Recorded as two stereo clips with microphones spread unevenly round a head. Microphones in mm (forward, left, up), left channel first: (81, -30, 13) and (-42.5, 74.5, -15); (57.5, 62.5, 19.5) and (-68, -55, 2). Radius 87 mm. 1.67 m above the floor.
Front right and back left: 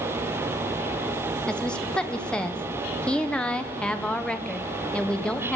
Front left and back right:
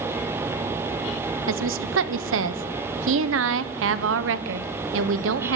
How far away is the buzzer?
I don't hear a buzzer.